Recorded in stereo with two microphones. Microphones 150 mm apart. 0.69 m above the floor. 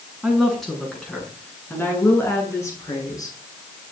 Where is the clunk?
No clunk in this recording.